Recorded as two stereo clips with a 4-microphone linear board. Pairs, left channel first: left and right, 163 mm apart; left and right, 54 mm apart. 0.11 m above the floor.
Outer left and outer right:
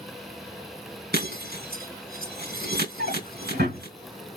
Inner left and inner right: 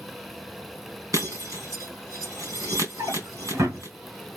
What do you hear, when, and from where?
1.1 s breaking glass: 80° right, 3.5 m
3.0 s a drawer: 85° right, 4.5 m